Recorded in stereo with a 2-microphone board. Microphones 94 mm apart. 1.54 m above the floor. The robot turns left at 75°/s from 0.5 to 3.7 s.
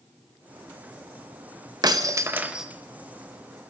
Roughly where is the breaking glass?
Behind right.